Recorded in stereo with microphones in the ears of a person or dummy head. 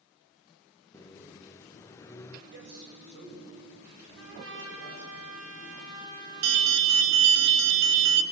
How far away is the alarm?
About 1.8 m.